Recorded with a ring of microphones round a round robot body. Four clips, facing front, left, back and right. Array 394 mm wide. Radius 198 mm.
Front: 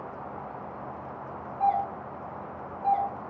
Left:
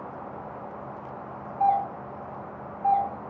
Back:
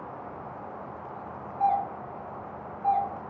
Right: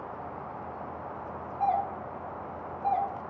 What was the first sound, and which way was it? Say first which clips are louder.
A doorbell: left 5 dB, even; 105° left.